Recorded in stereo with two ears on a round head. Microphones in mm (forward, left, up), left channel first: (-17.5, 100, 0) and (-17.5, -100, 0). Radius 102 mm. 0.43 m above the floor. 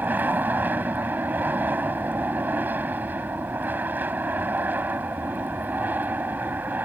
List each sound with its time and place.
0.0 s an aircraft: 10° right (ahead or behind)